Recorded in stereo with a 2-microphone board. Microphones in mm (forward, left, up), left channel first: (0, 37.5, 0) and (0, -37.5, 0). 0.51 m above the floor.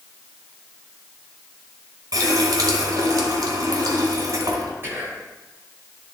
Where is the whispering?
30° right (ahead or behind), 2.5 m.